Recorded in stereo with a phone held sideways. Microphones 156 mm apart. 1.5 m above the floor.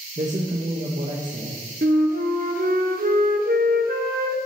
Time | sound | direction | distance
0.2 | a man speaking | 50° right (ahead or behind) | 1.3 m
1.8 | a flute | 65° right (ahead or behind) | 1.2 m